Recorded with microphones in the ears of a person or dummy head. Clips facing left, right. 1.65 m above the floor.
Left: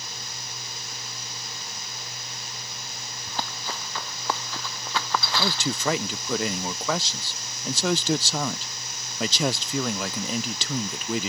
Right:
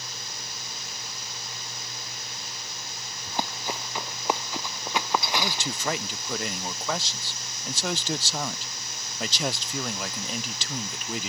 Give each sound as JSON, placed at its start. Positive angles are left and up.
{"t": 3.3, "sound": "running footsteps", "side_deg": -15}
{"t": 5.4, "sound": "a man speaking", "side_deg": 75}